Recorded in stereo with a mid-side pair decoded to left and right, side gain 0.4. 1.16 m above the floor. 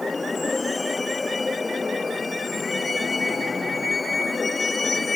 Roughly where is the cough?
I don't hear a cough.